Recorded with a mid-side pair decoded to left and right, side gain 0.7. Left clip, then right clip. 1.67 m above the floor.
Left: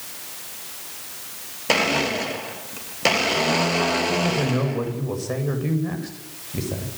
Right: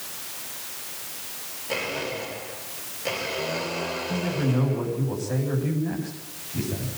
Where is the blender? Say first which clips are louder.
Left 9 dB; 60° left, 3 m.